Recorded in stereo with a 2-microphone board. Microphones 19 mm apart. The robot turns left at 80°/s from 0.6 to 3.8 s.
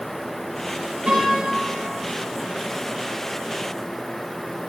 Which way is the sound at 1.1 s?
80° right.